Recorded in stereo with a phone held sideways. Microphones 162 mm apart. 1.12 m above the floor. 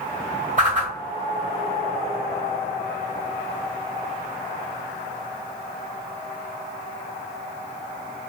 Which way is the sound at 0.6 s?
50° right (ahead or behind).